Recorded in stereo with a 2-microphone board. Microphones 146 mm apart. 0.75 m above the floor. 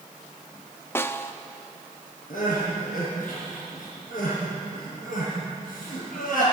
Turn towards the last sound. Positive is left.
turn(degrees=70)  # may be behind; listen again after turning